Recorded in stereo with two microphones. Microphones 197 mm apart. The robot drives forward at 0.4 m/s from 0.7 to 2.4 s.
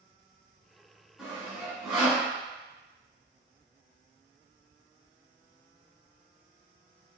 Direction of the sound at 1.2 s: Centre (ahead or behind).